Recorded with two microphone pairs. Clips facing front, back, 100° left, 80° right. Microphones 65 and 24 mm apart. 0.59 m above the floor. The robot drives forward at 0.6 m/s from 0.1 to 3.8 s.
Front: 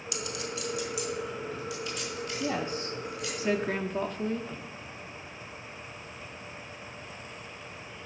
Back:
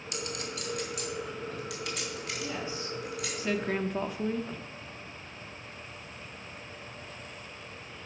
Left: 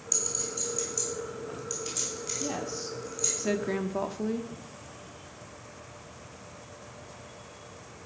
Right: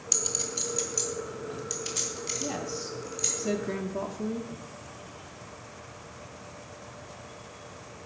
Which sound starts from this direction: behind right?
A clink, at 0.1 s.